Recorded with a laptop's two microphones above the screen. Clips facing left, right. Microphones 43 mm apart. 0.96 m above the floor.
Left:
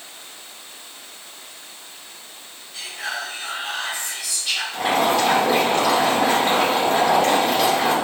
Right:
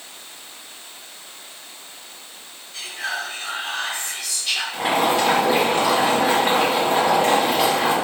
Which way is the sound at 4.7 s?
10° right (ahead or behind).